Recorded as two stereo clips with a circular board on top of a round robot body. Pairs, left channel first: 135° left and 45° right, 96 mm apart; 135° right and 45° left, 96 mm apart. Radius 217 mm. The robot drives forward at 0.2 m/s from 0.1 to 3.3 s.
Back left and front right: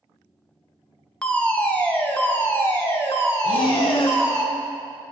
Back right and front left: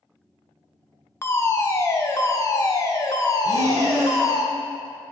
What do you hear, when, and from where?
1.2 s a fire alarm: 160° right, 1.0 m; by 4.4 s 170° right, 1.2 m
3.4 s breathing: 105° left, 0.7 m